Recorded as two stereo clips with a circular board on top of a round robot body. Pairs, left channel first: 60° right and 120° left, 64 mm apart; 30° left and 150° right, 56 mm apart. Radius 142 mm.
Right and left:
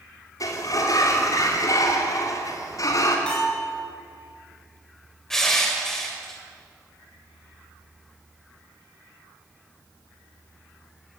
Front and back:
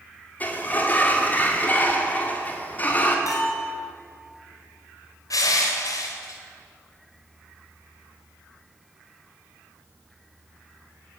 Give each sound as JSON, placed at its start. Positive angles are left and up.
{"t": 0.4, "sound": "a sliding door", "azimuth_deg": -30, "distance_m": 3.0}
{"t": 3.3, "sound": "a bell", "azimuth_deg": 15, "distance_m": 6.0}
{"t": 5.3, "sound": "crushing", "azimuth_deg": 25, "distance_m": 2.5}